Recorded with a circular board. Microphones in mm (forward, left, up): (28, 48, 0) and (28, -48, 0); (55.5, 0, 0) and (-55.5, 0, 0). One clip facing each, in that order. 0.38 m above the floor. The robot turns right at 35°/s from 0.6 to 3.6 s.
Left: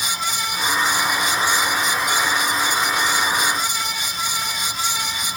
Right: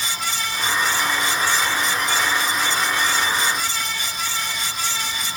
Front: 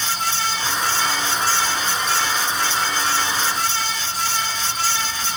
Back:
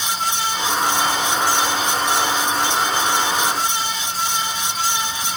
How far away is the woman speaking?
I don't hear a woman speaking.